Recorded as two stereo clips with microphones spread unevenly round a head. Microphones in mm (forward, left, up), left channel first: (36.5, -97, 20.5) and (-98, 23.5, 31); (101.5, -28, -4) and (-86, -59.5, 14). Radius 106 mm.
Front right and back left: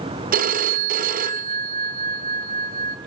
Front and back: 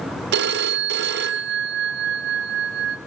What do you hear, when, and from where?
0.3 s a phone ringing: 170° left, 0.8 m